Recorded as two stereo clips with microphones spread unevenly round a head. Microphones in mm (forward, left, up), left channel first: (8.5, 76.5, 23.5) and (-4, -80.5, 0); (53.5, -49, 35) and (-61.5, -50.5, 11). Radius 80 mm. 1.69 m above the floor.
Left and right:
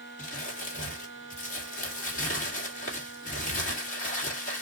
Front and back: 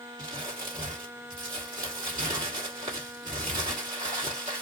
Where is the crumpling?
110° left, 1.9 m.